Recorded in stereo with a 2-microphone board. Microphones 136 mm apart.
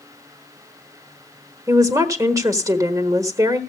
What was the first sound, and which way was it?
A woman speaking, 25° right (ahead or behind).